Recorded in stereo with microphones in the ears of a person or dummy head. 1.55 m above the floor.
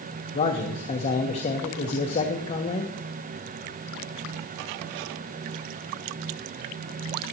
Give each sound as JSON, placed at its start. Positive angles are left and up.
{"t": 0.3, "sound": "a man speaking", "side_deg": 35, "distance_m": 1.3}